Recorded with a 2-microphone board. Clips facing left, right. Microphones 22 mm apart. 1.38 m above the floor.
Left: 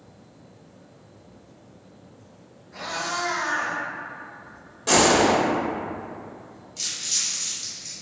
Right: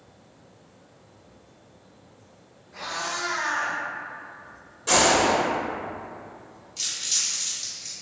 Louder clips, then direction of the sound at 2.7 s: Left 2 dB; 40° left (ahead or behind).